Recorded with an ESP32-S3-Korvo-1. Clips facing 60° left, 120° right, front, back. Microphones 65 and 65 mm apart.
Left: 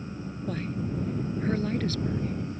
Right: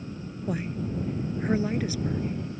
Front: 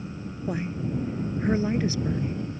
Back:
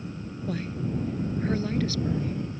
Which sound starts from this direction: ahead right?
A woman speaking, at 0.5 s.